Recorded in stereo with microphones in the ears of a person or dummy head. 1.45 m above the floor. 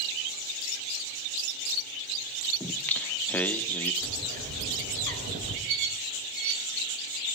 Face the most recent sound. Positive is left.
turn(degrees=-50)  # may be behind; listen again after turning